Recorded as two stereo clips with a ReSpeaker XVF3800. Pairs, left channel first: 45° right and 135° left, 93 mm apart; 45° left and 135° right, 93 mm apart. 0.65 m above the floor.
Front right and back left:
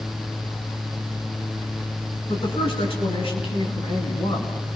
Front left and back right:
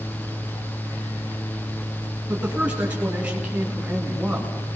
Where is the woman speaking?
60° right, 6 m; by 4.5 s 50° right, 5.5 m.